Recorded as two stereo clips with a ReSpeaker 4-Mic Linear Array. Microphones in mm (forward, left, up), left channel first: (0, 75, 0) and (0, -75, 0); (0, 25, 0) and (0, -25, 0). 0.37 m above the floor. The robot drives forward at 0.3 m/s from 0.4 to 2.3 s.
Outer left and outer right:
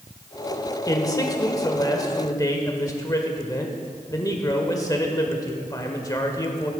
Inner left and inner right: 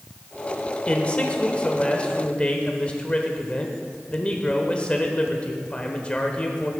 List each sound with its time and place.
0.9 s a man speaking: 25° left (ahead or behind), 1.3 m